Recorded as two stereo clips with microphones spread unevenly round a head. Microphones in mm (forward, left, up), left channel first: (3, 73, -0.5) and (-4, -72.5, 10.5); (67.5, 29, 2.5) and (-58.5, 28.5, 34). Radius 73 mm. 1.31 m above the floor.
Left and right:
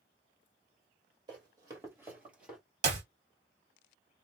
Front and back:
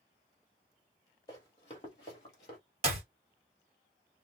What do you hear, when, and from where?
1.3 s running footsteps: 70° right, 1.5 m; by 2.6 s 15° right, 1.5 m
2.8 s a clap: 135° right, 1.3 m